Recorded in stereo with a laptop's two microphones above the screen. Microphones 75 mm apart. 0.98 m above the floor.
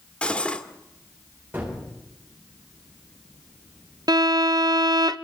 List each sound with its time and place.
0.2 s cutlery clinking: 15° left (ahead or behind), 1.5 m
1.5 s a gunshot: 25° right (ahead or behind), 4 m
4.1 s a violin: 60° right (ahead or behind), 0.5 m